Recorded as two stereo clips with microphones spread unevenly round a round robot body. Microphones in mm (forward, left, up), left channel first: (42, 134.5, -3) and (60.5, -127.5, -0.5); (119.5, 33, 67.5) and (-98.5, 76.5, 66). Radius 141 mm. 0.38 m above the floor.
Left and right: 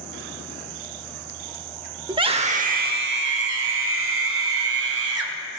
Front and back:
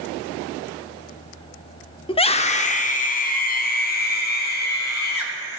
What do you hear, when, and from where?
2.1 s a scream: 35° right, 0.8 m; by 5.6 s 55° right, 2 m